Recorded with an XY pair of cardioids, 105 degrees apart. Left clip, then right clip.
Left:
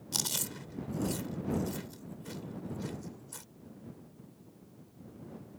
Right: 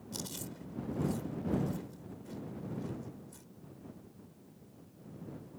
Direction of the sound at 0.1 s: 70° left.